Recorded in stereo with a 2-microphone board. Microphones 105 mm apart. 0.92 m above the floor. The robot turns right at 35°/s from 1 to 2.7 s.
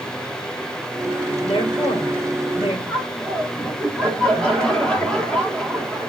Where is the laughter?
5° left (ahead or behind), 2.5 m.